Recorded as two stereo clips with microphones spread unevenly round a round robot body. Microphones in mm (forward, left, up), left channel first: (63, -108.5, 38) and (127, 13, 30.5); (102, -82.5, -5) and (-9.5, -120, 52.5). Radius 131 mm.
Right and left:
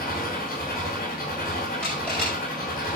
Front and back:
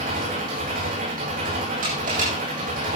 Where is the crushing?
155° left, 7 m.